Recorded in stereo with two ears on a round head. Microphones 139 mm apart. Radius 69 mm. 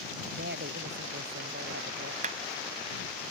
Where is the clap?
45° right (ahead or behind).